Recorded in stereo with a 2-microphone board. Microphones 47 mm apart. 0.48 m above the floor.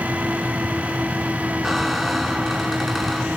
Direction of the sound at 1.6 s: Centre (ahead or behind).